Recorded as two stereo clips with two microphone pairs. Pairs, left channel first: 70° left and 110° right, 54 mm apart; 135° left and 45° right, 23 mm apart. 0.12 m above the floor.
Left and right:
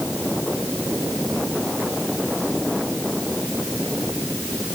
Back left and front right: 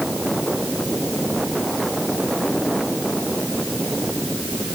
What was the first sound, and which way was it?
Only background noise.